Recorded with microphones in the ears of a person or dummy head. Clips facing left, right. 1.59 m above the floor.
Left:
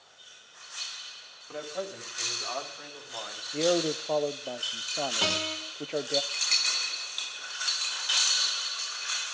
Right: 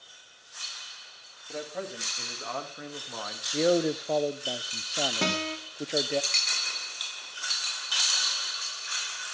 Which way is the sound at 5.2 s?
40° right (ahead or behind).